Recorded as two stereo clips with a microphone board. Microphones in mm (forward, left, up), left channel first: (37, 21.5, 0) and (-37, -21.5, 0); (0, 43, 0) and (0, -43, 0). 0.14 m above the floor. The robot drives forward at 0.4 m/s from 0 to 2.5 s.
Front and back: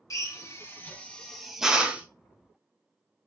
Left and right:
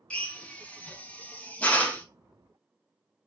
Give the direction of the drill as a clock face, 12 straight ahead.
11 o'clock.